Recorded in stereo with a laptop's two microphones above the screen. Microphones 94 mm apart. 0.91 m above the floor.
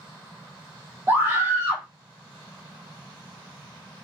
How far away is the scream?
About 0.9 m.